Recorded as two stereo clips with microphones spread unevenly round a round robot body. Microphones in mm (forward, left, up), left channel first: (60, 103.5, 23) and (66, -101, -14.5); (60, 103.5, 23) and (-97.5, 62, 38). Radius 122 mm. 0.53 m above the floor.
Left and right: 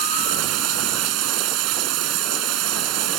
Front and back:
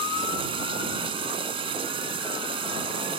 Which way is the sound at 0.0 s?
95° right.